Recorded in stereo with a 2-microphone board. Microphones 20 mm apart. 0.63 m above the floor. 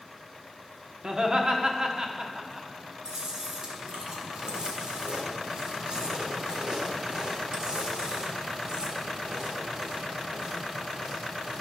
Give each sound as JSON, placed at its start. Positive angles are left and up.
{"t": 1.0, "sound": "laughter", "side_deg": -45, "distance_m": 1.2}
{"t": 3.0, "sound": "chewing", "side_deg": -40, "distance_m": 1.7}